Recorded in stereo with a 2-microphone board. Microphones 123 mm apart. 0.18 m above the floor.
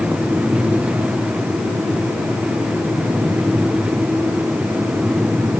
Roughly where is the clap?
No clap in this recording.